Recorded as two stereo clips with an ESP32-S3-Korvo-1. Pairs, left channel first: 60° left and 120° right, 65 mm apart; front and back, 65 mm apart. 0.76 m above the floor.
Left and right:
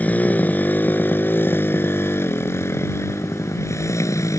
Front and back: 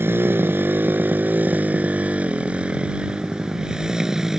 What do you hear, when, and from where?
0.0 s a motorcycle: 125° left; by 4.4 s 95° left